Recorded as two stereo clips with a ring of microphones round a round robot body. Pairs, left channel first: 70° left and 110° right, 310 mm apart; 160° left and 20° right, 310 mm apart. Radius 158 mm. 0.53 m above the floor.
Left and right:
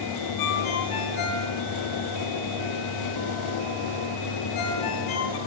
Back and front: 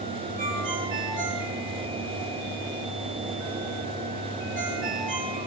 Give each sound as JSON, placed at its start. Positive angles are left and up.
{"t": 0.4, "sound": "a ringtone", "azimuth_deg": 45, "distance_m": 5.0}